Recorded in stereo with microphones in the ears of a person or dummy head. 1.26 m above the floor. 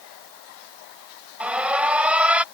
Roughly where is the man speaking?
No man speaking in this recording.